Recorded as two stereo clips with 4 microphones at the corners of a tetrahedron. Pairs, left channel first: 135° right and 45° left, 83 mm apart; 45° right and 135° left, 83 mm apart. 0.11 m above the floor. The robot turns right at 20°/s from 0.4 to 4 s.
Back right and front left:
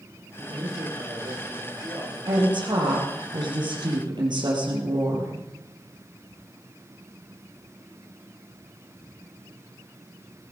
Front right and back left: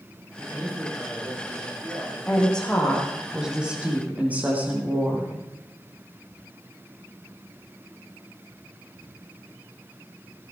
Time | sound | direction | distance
0.4 | a man speaking | 65° left | 6 m
2.3 | a woman speaking | 30° left | 4.5 m